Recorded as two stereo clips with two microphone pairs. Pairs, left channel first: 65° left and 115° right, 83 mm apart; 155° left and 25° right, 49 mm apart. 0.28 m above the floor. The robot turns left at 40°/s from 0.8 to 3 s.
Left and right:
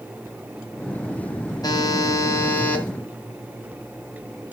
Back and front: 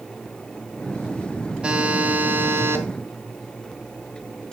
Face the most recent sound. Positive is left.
turn(degrees=-15)